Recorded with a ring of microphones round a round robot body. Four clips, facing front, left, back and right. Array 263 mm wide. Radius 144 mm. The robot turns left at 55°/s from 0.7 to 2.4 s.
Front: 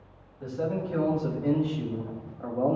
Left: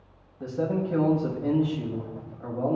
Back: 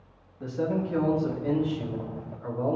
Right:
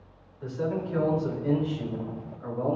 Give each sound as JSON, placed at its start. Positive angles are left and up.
{"t": 0.4, "sound": "a man speaking", "azimuth_deg": 110, "distance_m": 4.5}